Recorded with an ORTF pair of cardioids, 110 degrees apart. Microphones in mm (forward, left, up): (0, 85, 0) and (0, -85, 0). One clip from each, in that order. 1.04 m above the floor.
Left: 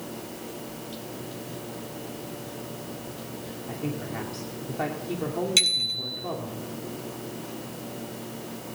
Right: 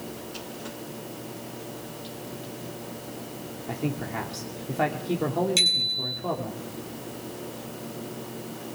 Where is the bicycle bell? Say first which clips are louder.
Even; 25° left, 8 m.